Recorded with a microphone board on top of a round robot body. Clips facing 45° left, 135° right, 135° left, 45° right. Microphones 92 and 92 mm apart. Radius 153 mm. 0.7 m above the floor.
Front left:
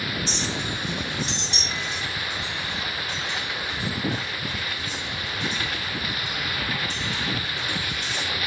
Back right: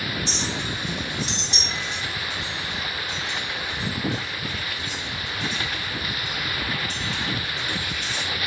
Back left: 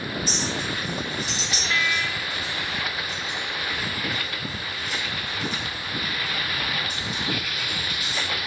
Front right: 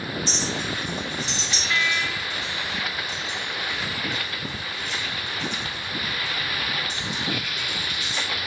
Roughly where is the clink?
Behind right.